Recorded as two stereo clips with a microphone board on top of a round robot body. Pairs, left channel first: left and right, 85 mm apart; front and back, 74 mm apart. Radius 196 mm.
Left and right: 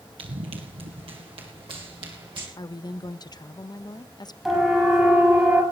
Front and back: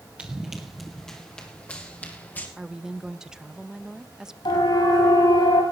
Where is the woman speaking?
100° left, 0.8 m.